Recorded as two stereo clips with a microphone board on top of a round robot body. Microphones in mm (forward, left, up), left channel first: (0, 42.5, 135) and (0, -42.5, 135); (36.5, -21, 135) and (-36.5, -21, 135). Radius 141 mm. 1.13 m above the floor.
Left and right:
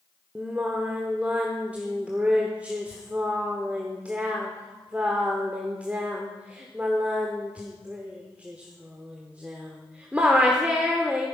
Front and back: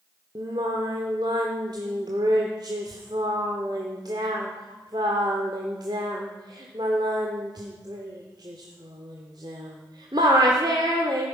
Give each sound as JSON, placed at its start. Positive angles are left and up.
{"t": 0.3, "sound": "singing", "azimuth_deg": -165, "distance_m": 0.8}